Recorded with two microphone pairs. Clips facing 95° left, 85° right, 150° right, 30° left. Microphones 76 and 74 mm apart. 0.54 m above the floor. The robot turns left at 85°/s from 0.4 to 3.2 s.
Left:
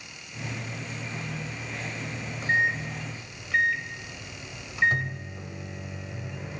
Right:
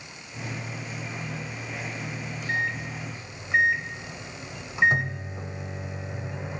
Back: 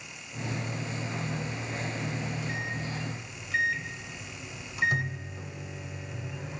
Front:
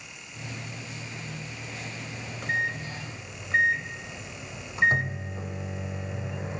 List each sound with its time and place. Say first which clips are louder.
2.1 s a microwave: left 4 dB, front 4 dB; 70° left, 1.5 m; by 6.6 s 20° right, 1.5 m